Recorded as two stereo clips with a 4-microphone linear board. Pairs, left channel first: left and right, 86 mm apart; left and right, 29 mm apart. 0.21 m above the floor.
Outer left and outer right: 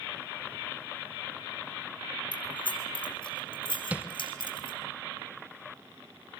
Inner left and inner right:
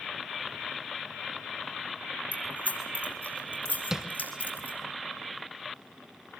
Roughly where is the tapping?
Centre.